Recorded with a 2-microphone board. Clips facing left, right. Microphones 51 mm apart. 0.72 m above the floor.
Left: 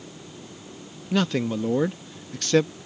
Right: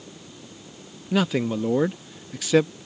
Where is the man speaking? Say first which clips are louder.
Right 1 dB; 5° right (ahead or behind).